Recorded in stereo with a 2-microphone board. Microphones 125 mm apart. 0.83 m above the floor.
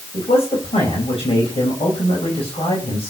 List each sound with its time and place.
0.1 s a man speaking: 45° left (ahead or behind), 4.5 m